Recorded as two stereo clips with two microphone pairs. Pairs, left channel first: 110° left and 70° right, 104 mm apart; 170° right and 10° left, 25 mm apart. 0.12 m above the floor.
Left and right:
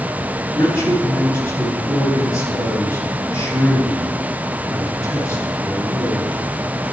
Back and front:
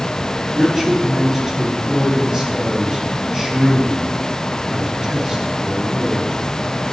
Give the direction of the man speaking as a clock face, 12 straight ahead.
10 o'clock.